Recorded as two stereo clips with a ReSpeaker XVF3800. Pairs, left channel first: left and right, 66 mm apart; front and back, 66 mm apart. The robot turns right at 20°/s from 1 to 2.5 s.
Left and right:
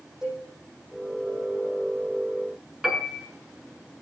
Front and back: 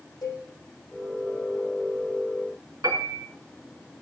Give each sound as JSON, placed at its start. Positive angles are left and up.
{"t": 0.2, "sound": "a cowbell", "azimuth_deg": -10, "distance_m": 8.0}
{"t": 2.8, "sound": "a piano", "azimuth_deg": -175, "distance_m": 3.0}